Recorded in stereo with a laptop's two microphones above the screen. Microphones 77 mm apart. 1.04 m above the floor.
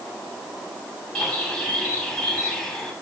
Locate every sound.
1.1 s a bird: 5° left (ahead or behind), 7 m